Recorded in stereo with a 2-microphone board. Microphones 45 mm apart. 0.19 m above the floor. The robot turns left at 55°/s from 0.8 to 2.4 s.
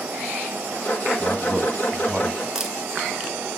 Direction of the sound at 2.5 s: 15° right (ahead or behind).